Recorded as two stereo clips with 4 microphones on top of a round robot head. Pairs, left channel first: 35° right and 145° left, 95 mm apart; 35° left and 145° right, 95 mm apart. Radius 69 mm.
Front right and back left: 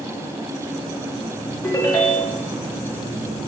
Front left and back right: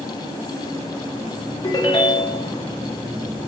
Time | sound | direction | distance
1.6 | a ringtone | 10° left | 0.5 m